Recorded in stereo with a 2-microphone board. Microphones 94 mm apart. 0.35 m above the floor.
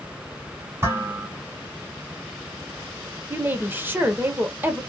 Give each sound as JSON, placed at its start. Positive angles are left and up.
{"t": 0.8, "sound": "dishes clattering", "side_deg": -25, "distance_m": 1.7}
{"t": 3.3, "sound": "a woman speaking", "side_deg": -20, "distance_m": 0.8}